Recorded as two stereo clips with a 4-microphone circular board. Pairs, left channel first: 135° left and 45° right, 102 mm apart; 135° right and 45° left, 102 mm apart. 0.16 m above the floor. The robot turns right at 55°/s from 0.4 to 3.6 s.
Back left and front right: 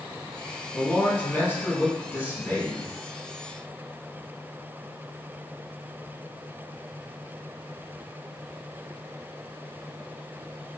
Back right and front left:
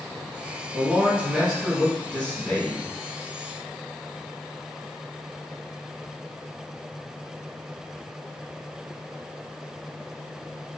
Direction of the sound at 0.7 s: 75° left.